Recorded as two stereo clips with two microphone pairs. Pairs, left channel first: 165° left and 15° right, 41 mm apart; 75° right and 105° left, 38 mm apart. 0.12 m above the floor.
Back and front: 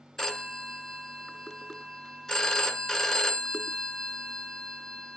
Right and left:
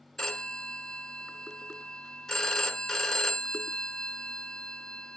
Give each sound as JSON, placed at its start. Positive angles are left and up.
{"t": 0.2, "sound": "a phone ringing", "azimuth_deg": -135, "distance_m": 0.6}